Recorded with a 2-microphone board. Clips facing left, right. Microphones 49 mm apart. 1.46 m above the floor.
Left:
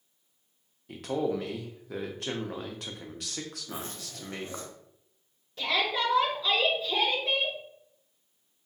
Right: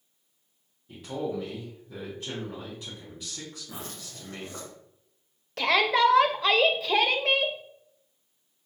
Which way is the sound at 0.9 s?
75° left (ahead or behind).